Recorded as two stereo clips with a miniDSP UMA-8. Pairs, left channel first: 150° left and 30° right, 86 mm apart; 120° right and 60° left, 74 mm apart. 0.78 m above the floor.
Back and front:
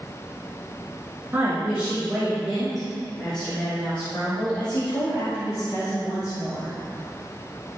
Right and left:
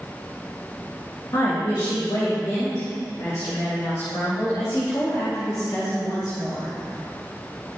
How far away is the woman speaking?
About 3 m.